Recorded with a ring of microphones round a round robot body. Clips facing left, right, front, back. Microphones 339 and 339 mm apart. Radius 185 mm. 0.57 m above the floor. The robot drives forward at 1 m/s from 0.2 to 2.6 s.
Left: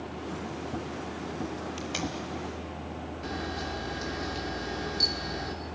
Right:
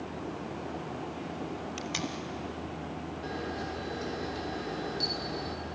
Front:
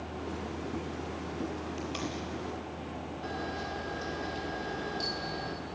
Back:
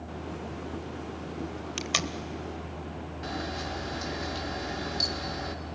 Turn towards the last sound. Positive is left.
turn(degrees=155)